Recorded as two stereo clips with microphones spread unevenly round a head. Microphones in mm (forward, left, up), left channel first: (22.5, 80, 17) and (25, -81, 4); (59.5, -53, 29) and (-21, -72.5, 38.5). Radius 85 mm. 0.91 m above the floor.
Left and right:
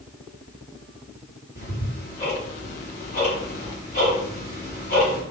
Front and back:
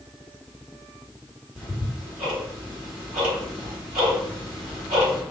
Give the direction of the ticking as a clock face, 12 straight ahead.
7 o'clock.